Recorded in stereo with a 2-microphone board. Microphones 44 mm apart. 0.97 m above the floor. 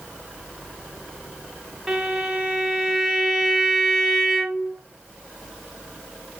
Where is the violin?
5° right (ahead or behind), 3 m.